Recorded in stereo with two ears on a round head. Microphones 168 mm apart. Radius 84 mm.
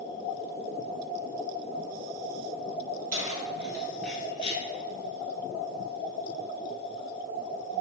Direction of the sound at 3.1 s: 45° right (ahead or behind).